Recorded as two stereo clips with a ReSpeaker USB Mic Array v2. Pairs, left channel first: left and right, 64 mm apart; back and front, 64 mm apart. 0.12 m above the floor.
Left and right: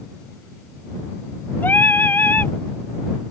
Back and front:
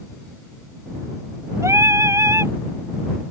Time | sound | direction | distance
1.6 | singing | 35° left | ?